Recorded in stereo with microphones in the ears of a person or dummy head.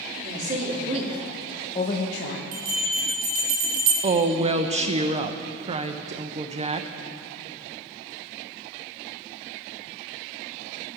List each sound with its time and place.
0.2 s a woman speaking: 50° right (ahead or behind), 2.5 m; by 2.4 s 70° left (ahead or behind), 1.4 m
2.5 s a bell: 40° right (ahead or behind), 1.7 m
4.0 s a woman speaking: 30° right (ahead or behind), 0.6 m